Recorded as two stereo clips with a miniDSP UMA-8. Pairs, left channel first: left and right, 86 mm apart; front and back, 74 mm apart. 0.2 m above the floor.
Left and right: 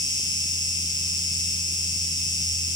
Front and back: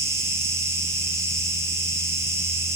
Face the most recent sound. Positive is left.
turn(degrees=130)